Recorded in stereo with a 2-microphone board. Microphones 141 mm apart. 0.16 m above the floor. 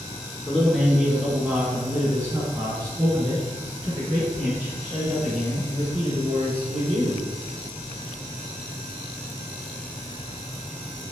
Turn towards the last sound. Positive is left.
turn(degrees=-50)  # may be behind; listen again after turning